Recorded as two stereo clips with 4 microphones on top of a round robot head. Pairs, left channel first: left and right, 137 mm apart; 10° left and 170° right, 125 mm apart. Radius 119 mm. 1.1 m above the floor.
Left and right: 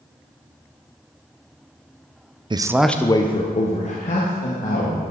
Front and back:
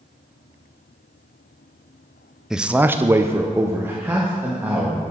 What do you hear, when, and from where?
2.5 s a man speaking: 90° right, 0.7 m; by 5.0 s 115° left, 2.5 m